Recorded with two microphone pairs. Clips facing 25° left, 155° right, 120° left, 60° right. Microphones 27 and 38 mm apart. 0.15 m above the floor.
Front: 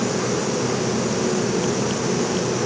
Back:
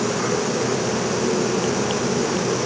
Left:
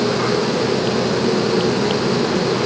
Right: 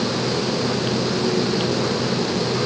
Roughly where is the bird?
I don't hear a bird.